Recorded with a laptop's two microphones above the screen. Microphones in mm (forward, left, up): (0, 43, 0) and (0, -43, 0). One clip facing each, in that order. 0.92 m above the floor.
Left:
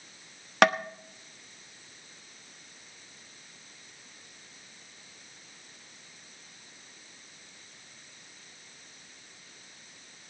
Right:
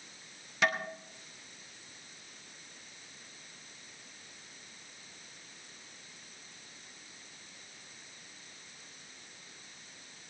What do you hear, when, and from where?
0.6 s tapping: 75° left (ahead or behind), 0.8 m